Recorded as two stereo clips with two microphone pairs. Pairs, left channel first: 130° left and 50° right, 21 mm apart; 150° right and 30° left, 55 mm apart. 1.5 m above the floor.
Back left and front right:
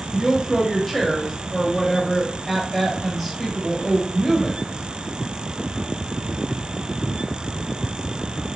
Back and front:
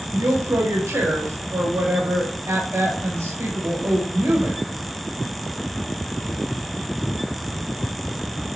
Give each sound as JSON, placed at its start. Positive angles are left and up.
{"t": 0.1, "sound": "a woman speaking", "azimuth_deg": 45, "distance_m": 1.3}